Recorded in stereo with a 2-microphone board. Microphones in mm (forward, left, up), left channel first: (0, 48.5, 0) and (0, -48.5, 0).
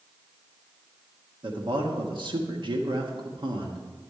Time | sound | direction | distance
1.4 | a man speaking | 55° right (ahead or behind) | 1.4 m